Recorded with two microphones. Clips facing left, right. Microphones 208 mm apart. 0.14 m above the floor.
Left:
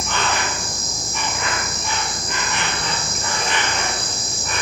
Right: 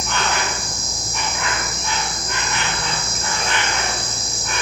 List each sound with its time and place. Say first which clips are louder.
0.0 s an insect: even; 5° left (ahead or behind), 1.3 m